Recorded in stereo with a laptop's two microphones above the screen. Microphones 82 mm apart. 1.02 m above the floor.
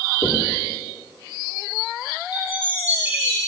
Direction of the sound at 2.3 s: 25° right (ahead or behind).